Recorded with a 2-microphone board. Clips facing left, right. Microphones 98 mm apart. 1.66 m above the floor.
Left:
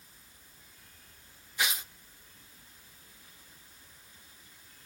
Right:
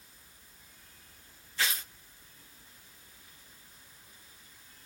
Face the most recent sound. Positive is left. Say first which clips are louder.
# even
turn(degrees=15)  # may be behind; listen again after turning